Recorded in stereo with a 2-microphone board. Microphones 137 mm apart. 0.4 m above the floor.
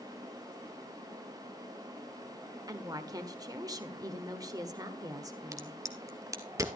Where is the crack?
25° right (ahead or behind), 1.4 m.